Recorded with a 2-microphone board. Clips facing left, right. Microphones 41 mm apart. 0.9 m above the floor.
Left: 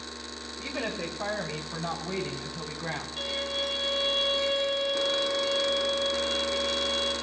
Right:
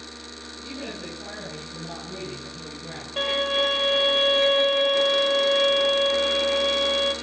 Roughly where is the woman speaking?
Left.